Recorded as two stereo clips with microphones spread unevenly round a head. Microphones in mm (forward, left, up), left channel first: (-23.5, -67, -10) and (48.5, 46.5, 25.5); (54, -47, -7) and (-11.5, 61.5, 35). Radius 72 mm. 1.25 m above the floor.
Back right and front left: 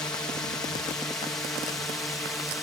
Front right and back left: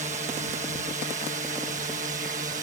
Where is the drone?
165° left; by 2.6 s 160° left.